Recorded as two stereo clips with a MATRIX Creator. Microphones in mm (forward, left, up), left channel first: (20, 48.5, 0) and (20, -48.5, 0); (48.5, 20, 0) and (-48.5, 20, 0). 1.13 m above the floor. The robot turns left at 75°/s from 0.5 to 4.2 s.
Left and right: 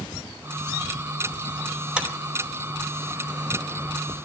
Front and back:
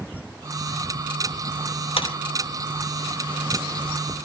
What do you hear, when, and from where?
2.0 s a clap: 10° right, 4 m; by 2.1 s 20° right, 4 m